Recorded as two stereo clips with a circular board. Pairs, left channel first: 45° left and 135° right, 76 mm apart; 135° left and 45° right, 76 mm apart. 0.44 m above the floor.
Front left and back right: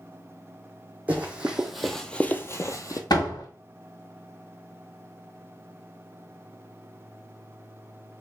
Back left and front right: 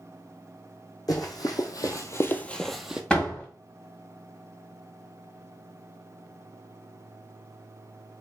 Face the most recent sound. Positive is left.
turn(degrees=60)